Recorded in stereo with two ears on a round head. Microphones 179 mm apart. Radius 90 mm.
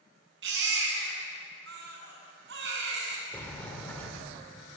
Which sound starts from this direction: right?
A baby crying, at 0.4 s.